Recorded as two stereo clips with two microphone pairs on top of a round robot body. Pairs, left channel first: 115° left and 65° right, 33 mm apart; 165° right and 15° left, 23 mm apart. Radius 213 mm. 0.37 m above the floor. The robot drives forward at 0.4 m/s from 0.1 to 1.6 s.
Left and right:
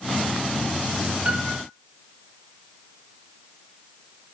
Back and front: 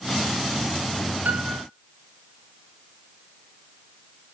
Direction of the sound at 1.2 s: Straight ahead.